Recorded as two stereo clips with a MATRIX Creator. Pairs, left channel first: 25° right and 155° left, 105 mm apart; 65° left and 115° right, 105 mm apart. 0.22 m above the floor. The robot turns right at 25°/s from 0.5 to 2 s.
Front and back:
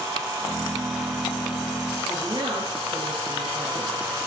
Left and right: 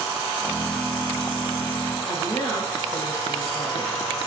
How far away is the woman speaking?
About 3 m.